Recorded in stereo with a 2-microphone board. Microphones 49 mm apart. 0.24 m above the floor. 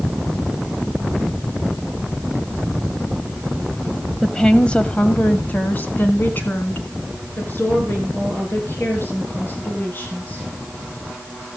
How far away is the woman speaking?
About 1.1 m.